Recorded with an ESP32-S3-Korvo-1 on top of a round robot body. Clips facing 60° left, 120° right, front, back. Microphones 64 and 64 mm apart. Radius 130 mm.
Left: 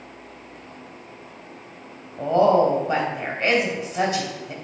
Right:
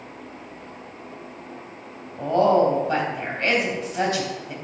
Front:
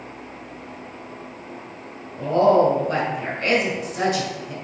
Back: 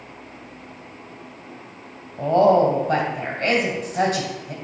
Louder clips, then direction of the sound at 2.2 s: Left 1 dB, back 1 dB; 130° left.